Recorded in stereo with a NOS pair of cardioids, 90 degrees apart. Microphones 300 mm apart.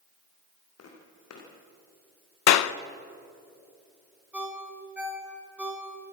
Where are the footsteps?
60° left, 6 m.